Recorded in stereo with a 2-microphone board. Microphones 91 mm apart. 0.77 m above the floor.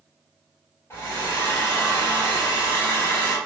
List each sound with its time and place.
0.9 s a hair dryer: 30° left (ahead or behind), 1.2 m